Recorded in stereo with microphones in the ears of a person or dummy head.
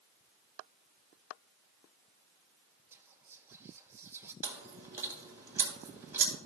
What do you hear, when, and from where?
2.9 s whispering: 5° right (ahead or behind), 0.8 m
4.4 s chewing: 5° right (ahead or behind), 2.5 m